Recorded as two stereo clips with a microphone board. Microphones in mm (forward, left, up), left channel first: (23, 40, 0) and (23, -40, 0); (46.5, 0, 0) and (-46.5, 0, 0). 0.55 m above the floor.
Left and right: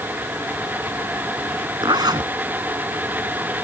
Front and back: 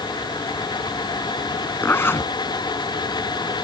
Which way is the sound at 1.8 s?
65° right.